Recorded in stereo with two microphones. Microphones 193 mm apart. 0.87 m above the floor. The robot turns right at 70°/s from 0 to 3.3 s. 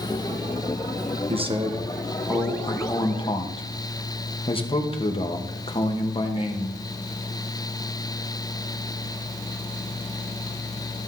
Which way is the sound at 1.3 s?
75° right.